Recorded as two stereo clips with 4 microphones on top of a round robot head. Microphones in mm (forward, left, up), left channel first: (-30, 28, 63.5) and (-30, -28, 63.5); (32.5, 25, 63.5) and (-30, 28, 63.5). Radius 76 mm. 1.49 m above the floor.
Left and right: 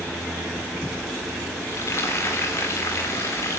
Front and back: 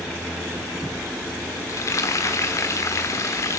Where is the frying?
35° left, 3 m.